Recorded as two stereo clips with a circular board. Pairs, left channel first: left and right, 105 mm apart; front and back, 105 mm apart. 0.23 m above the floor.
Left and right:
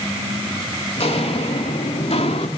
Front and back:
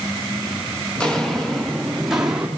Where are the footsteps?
80° left, 3.5 m; by 2.5 s 100° left, 3 m.